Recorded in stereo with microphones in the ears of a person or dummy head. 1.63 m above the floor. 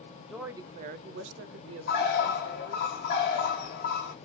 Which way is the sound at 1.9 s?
40° left (ahead or behind).